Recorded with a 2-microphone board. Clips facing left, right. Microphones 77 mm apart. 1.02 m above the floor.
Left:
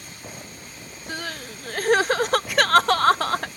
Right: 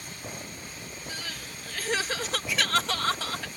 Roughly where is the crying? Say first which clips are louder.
Left 10 dB; left.